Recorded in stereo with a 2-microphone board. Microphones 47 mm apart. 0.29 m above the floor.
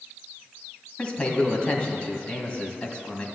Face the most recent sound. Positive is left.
turn(degrees=25)  # may be behind; listen again after turning